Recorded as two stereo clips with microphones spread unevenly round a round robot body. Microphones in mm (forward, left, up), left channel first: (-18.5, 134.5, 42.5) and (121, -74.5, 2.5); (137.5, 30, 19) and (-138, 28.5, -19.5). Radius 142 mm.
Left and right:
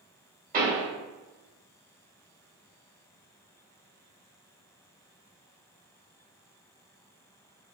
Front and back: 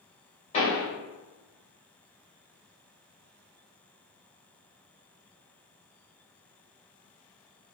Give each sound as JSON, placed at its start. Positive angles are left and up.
{"t": 0.5, "sound": "a pop", "azimuth_deg": -70, "distance_m": 1.7}